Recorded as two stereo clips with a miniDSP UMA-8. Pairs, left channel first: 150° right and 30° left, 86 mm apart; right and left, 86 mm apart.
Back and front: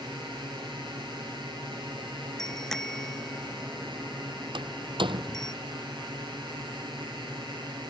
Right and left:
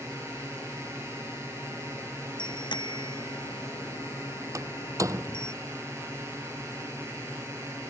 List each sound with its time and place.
0.0 s a drone: 35° left
2.4 s a bicycle bell: 65° right
4.5 s a door slam: 40° left